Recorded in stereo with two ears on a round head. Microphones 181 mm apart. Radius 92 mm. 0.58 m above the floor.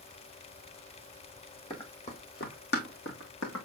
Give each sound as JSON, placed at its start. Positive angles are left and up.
{"t": 1.7, "sound": "running footsteps", "side_deg": 25, "distance_m": 1.6}